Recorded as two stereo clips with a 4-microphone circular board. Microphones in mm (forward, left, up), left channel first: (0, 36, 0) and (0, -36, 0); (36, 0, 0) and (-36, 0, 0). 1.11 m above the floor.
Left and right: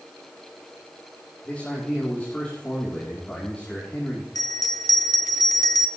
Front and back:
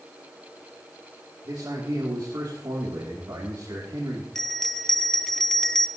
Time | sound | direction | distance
1.4 | a man speaking | 155° left | 3 m
4.3 | a bell | 85° left | 0.9 m